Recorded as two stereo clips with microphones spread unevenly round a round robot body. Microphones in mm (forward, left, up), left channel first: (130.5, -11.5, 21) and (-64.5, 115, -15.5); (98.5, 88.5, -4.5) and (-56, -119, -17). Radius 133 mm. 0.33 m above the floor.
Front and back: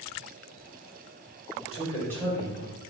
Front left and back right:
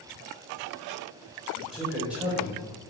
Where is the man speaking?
45° right, 0.8 m; by 2.8 s 165° left, 0.9 m.